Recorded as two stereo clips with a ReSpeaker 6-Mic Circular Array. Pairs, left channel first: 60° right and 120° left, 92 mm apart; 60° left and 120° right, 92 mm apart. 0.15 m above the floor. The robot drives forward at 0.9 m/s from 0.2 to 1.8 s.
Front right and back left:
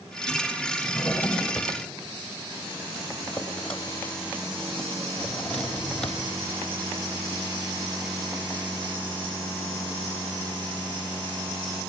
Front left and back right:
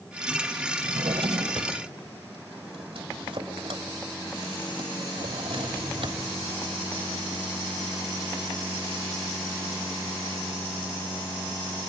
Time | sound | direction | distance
0.8 | a drawer | 125° right | 1.9 m